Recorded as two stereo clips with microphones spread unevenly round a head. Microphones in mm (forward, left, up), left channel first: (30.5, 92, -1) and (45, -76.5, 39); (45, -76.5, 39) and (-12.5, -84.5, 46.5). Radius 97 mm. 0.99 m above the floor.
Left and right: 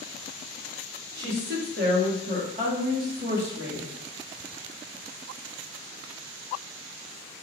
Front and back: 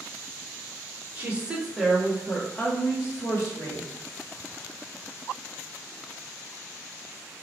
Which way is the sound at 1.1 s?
110° right.